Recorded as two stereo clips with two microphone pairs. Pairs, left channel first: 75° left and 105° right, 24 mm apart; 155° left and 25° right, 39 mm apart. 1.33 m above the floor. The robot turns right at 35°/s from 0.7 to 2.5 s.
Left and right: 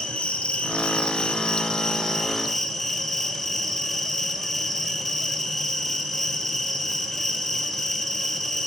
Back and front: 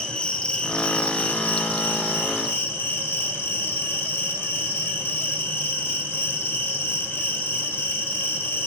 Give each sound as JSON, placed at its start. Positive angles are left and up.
{"t": 0.0, "sound": "an insect", "azimuth_deg": 95, "distance_m": 1.1}